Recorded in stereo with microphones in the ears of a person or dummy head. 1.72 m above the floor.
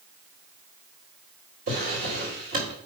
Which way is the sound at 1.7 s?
35° right (ahead or behind).